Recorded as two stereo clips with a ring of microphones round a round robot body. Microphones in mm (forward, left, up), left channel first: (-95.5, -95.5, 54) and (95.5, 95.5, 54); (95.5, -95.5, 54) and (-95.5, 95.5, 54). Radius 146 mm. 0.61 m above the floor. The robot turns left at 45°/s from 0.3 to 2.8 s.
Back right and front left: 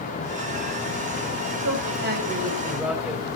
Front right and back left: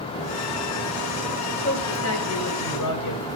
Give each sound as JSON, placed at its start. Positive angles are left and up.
{"t": 1.6, "sound": "a man speaking", "azimuth_deg": 10, "distance_m": 5.0}